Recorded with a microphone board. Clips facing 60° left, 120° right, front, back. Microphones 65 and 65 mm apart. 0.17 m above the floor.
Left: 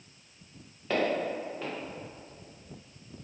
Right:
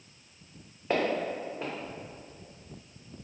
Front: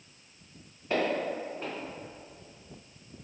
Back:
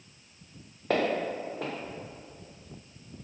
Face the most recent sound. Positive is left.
turn(degrees=170)